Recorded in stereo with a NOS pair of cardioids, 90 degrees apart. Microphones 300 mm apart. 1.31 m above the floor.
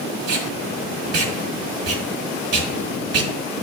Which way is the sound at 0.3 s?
55° right.